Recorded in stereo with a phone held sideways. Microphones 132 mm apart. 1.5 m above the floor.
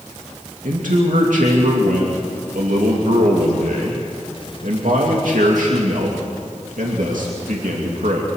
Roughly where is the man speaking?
Right.